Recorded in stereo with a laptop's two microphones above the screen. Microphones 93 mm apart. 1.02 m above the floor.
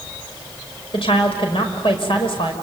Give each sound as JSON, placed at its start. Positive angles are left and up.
{"t": 0.9, "sound": "a woman speaking", "side_deg": 70, "distance_m": 5.0}